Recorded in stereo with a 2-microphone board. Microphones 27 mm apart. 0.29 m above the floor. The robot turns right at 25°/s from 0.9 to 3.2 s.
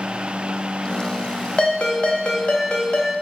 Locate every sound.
1.6 s a ringtone: 70° left, 0.8 m; by 3.1 s 110° left, 0.8 m